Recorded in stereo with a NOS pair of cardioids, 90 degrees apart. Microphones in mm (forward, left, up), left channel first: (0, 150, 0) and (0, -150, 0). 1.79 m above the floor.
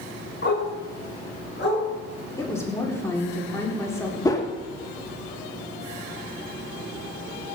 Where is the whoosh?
10° left, 2 m.